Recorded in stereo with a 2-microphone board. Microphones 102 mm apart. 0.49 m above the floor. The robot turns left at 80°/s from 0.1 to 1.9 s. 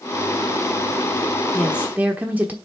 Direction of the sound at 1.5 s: Centre (ahead or behind).